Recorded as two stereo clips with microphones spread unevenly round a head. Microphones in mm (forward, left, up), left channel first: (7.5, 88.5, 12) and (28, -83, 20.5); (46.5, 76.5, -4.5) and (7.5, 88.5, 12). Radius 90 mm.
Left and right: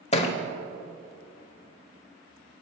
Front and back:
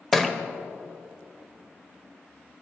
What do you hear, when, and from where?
0.1 s a thud: 105° left, 0.8 m